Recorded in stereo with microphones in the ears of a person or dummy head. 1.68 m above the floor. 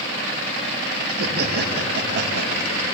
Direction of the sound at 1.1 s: 55° right (ahead or behind).